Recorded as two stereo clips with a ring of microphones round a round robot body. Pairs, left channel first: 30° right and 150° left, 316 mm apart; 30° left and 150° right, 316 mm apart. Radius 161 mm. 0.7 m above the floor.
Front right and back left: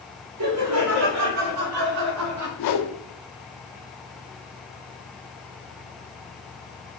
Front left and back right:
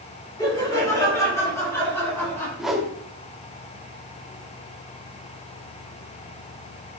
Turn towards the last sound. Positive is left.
turn(degrees=-60)